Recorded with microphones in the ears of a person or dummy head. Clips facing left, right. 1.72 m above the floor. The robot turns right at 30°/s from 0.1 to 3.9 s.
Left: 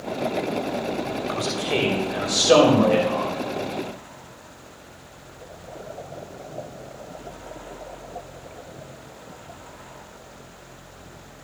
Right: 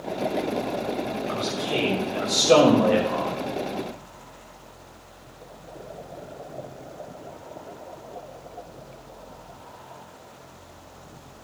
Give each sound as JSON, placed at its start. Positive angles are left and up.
{"t": 1.3, "sound": "a man speaking", "azimuth_deg": 135, "distance_m": 3.0}